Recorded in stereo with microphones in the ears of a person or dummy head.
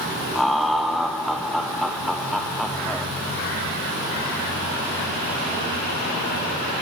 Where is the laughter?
Centre (ahead or behind), 0.5 m.